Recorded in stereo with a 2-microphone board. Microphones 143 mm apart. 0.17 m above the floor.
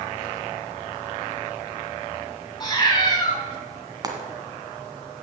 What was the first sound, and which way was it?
A cat meowing, 30° left (ahead or behind).